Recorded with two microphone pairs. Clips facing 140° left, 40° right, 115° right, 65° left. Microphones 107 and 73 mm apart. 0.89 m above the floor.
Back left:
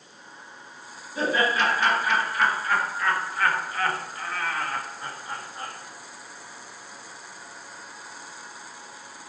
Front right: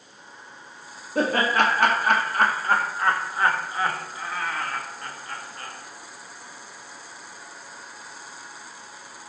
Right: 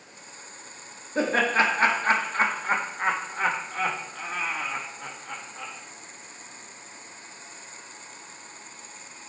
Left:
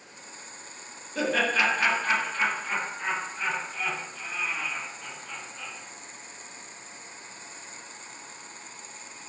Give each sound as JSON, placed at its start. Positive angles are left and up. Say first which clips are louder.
{"t": 1.1, "sound": "laughter", "louder": "front right 2 dB, right 3 dB", "azimuth_deg": -65, "distance_m": 2.0}